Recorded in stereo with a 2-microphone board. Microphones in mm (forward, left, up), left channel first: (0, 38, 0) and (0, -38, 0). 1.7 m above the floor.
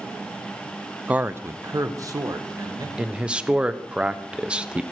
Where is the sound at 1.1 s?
15° right (ahead or behind), 0.6 m; by 2.9 s 55° right (ahead or behind), 2 m.